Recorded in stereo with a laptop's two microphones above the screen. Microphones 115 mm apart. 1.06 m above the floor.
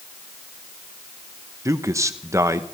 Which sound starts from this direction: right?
A man speaking, at 1.6 s.